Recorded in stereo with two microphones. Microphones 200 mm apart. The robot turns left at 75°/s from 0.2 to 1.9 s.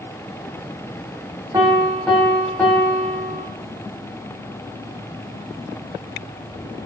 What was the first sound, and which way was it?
A piano, 20° right (ahead or behind).